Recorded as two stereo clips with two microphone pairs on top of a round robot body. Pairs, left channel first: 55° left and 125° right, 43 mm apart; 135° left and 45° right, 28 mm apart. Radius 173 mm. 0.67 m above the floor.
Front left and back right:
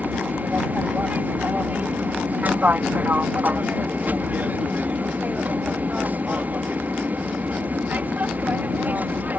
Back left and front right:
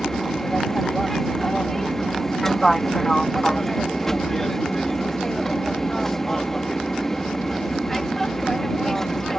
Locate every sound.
0.0 s an aircraft: 160° right